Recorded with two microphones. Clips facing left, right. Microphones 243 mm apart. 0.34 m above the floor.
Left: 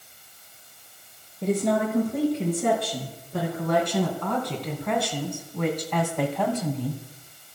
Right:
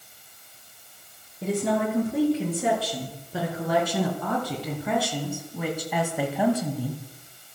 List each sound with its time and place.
1.4 s a woman speaking: 5° right (ahead or behind), 5.5 m; by 7.0 s 10° right (ahead or behind), 2 m